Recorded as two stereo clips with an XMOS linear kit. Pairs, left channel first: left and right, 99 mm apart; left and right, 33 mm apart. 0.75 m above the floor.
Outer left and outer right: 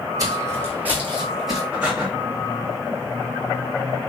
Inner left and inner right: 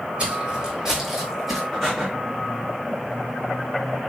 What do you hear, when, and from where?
0.2 s footsteps: 35° right (ahead or behind), 1.4 m; by 1.6 s centre (ahead or behind), 1.5 m
1.7 s breathing: 10° right (ahead or behind), 1.9 m